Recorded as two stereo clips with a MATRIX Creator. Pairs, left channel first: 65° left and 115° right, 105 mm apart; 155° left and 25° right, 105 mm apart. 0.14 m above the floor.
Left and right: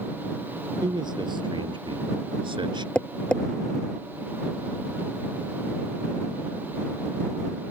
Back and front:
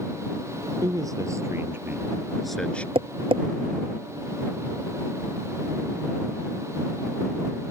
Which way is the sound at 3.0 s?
15° right.